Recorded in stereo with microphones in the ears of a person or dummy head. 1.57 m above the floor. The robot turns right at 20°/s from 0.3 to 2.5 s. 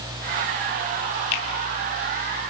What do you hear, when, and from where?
1.3 s a finger snap: 65° left (ahead or behind), 3.5 m